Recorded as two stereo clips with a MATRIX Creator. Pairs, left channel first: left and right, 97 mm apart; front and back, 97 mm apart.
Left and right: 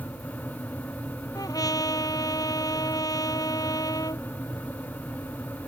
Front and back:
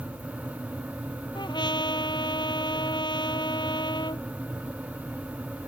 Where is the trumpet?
40° left.